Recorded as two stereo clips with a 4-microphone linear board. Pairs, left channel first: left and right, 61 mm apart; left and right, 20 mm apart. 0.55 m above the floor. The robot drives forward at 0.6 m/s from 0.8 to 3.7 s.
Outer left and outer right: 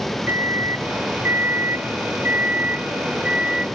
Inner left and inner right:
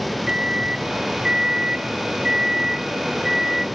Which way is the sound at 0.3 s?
35° right (ahead or behind).